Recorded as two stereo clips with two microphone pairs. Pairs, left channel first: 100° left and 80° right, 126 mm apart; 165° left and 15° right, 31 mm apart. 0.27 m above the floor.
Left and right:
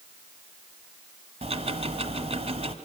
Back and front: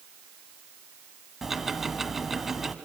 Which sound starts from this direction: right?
Ticking, at 1.4 s.